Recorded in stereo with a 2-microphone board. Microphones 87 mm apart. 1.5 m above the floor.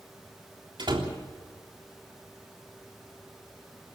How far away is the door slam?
About 3.5 m.